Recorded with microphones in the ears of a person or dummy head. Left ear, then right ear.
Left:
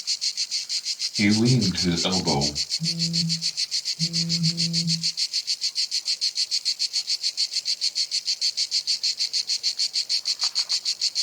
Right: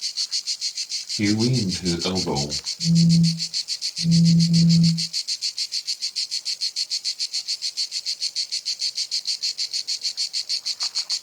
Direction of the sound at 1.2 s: 15° left (ahead or behind).